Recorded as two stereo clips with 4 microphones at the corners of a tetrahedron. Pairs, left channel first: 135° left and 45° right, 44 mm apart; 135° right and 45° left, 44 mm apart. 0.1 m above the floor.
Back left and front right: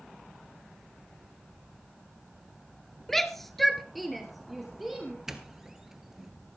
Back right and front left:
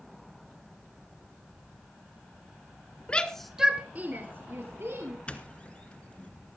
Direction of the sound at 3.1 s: 150° right.